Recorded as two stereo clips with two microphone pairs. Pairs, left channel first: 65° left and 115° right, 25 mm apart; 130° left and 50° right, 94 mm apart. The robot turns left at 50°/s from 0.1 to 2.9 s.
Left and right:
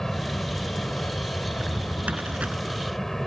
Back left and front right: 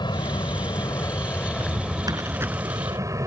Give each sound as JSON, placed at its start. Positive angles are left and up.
{"t": 0.0, "sound": "an aircraft", "azimuth_deg": 135}
{"t": 1.5, "sound": "a drawer", "azimuth_deg": -65}